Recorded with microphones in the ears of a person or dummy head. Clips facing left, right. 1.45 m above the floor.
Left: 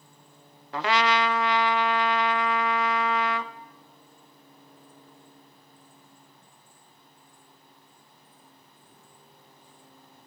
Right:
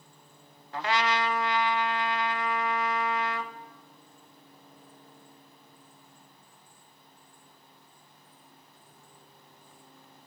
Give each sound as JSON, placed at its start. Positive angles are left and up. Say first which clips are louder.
{"t": 0.7, "sound": "a trumpet", "louder": "left 4 dB", "side_deg": 60, "distance_m": 0.6}